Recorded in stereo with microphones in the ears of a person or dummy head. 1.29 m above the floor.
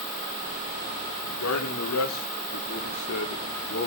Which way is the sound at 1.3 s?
85° left.